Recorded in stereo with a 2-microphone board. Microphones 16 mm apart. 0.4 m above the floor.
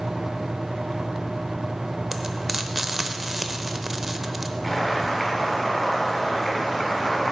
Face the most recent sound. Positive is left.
turn(degrees=10)  # may be behind; listen again after turning